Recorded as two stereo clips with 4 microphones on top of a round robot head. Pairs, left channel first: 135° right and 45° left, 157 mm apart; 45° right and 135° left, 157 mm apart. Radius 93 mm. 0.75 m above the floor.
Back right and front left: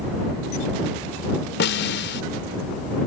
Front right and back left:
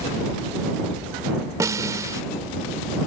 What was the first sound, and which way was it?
A snare drum, 155° right.